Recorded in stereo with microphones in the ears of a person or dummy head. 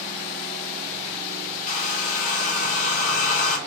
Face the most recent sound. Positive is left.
turn(degrees=50)  # may be behind; listen again after turning